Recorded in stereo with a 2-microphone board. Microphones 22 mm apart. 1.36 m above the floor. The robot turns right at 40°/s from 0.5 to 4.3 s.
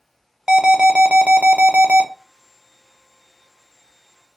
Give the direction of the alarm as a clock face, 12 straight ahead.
5 o'clock.